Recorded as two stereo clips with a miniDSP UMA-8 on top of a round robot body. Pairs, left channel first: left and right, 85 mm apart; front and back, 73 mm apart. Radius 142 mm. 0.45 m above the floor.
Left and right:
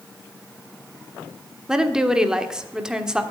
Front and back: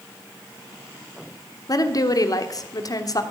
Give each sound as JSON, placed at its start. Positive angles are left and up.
{"t": 1.7, "sound": "a woman speaking", "azimuth_deg": -10, "distance_m": 1.4}